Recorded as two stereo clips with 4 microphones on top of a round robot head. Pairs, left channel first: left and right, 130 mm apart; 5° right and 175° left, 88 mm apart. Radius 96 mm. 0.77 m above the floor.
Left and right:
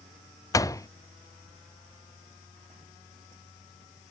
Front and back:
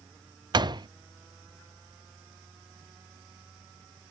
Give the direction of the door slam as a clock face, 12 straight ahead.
7 o'clock.